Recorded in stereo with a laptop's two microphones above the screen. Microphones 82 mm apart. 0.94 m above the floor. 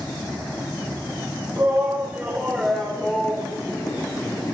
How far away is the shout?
About 3.5 m.